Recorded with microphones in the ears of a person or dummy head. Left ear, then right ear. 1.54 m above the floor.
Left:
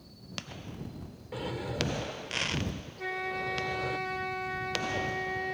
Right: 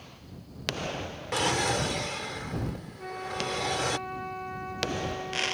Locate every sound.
1.3 s a drawer: 35° right (ahead or behind)
3.0 s a flute: 55° left (ahead or behind)